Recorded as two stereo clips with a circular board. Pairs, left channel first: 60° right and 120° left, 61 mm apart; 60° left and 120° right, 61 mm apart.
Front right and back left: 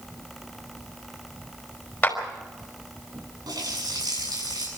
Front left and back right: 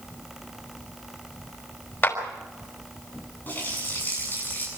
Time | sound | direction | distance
2.0 | a clap | 5° left | 5 m
3.5 | a running tap | 120° left | 8.5 m